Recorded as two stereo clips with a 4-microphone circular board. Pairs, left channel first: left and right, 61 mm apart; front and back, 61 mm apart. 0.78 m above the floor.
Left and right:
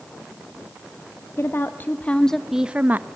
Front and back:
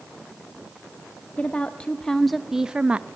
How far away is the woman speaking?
About 0.9 m.